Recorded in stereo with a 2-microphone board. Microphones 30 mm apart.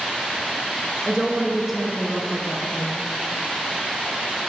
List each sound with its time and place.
1.0 s a woman speaking: 25° right (ahead or behind), 1.1 m; by 3.0 s 30° left (ahead or behind), 1.4 m